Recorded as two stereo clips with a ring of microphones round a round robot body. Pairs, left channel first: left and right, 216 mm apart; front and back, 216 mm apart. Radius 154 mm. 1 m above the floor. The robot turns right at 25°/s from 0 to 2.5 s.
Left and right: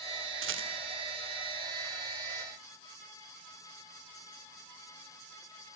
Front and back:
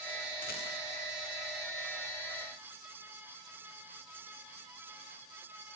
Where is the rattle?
65° right, 2 m; by 0.7 s 60° right, 2 m.